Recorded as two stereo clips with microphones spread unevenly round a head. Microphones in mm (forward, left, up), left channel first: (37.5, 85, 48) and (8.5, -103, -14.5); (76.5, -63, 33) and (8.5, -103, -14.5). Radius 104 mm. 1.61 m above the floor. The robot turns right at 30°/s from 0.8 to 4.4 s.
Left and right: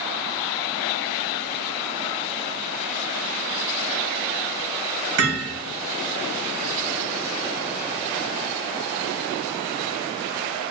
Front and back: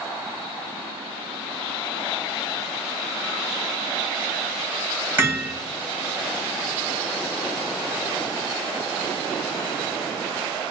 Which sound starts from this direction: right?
Hammering, at 5.2 s.